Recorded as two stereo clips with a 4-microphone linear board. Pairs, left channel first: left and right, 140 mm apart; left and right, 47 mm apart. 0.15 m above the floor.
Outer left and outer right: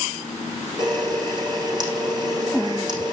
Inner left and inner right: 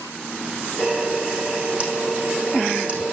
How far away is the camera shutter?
About 7 m.